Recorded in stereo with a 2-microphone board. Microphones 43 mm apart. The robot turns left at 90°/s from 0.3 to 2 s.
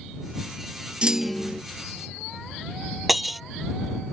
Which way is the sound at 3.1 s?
Centre (ahead or behind).